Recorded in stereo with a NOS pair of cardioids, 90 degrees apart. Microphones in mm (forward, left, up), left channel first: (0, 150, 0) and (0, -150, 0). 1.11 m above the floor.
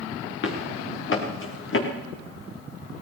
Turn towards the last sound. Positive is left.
turn(degrees=45)